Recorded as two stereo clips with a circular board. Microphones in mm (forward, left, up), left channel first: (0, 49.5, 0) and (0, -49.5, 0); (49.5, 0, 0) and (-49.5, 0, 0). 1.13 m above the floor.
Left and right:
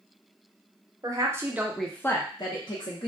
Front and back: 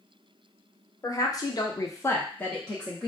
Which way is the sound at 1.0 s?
45° right.